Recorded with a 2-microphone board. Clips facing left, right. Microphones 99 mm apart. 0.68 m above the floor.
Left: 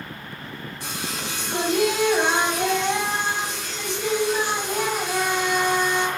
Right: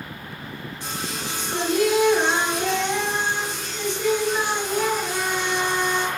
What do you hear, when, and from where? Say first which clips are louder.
0.8 s singing: right 1 dB; 85° left, 1.5 m